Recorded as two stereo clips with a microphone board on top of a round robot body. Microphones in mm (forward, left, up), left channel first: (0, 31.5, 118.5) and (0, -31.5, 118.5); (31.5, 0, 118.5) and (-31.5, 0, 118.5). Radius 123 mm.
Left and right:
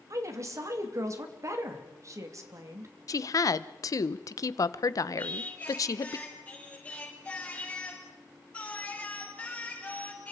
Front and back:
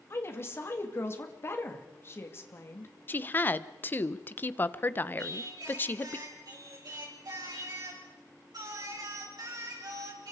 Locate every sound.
0.1 s a woman speaking: 50° right, 2.5 m
3.1 s a woman speaking: 60° left, 0.8 m
5.2 s singing: 160° left, 6 m